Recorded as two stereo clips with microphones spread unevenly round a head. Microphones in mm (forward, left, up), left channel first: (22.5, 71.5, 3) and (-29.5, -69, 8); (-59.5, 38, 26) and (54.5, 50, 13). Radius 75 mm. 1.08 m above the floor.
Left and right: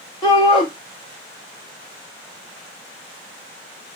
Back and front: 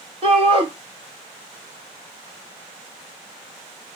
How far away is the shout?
About 0.9 m.